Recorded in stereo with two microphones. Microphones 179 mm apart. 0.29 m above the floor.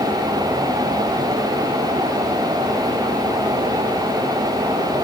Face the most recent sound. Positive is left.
No sound to turn to.